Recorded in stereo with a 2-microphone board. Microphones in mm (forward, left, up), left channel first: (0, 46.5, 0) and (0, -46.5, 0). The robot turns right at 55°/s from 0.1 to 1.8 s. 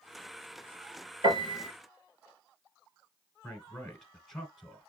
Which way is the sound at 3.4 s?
5° left (ahead or behind).